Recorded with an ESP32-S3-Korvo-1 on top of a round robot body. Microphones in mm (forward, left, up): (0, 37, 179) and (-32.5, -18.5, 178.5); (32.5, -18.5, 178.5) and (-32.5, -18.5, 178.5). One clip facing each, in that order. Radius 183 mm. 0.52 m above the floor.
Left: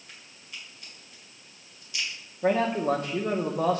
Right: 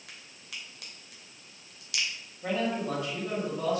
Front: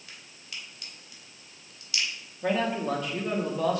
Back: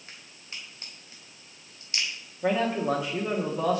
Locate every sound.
0.1 s a crack: 120° right, 2.5 m
2.4 s a man speaking: 100° left, 1.1 m